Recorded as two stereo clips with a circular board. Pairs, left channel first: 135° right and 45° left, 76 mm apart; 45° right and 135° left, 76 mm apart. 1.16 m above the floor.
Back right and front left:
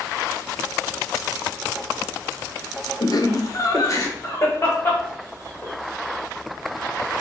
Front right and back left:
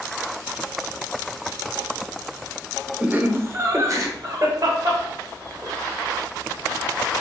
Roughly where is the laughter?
Behind right.